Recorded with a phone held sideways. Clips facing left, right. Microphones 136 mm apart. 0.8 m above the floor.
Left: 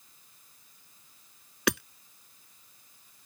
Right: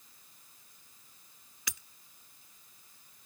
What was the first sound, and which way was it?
Hammering, 75° left (ahead or behind).